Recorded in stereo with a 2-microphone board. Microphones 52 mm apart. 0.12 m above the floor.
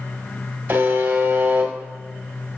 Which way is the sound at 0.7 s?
45° right (ahead or behind).